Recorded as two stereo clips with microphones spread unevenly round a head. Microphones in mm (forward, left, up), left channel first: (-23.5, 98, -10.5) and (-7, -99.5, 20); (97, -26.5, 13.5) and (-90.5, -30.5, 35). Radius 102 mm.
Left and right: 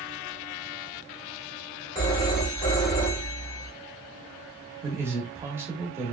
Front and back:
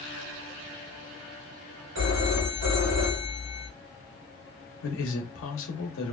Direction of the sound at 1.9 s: 160° left.